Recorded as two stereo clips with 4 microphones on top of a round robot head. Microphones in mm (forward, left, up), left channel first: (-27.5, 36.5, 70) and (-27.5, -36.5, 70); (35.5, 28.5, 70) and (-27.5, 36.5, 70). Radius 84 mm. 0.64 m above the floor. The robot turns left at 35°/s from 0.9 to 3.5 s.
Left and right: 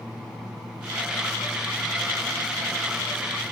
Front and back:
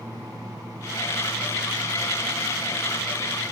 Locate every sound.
Only background noise.